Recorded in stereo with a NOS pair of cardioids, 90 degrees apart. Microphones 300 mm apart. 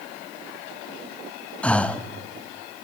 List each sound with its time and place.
1.6 s breathing: 5° left, 1.3 m